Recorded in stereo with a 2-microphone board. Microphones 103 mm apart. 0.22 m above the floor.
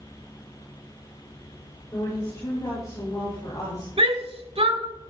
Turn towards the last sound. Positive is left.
turn(degrees=-60)  # may be behind; listen again after turning